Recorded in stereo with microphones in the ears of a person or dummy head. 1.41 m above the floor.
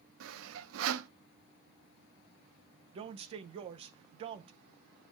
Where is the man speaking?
30° right (ahead or behind), 0.6 m.